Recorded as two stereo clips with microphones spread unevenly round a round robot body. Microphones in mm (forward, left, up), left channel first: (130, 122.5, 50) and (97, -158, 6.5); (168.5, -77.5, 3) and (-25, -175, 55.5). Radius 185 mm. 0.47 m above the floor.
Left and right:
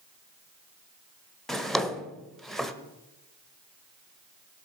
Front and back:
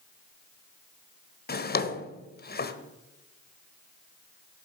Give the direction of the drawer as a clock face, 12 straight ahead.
12 o'clock.